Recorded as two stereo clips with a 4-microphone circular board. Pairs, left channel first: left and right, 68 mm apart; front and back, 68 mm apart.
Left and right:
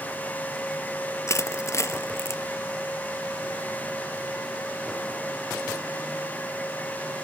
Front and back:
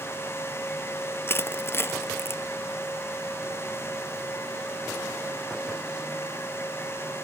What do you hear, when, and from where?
1.3 s crushing: 50° left, 0.6 m